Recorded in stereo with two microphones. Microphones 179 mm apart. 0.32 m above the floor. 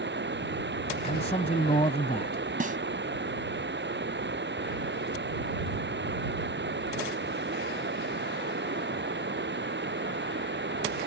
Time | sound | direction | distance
0.0 | running water | 85° right | ?
1.0 | a man speaking | 40° left (ahead or behind) | ?
2.6 | a snare drum | 50° right (ahead or behind) | ?